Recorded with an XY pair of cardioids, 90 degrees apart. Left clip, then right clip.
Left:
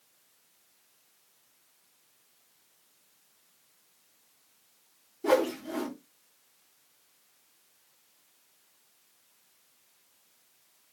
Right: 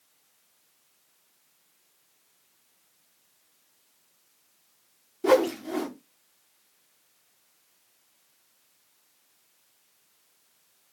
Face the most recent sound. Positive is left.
turn(degrees=-60)